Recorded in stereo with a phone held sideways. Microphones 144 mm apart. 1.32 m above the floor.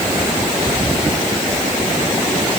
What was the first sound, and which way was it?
Only background noise.